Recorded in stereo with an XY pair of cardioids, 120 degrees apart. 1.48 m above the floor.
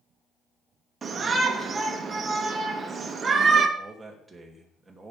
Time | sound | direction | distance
1.0 | a shout | 30° right | 2.0 m
3.8 | a man speaking | 15° right | 2.5 m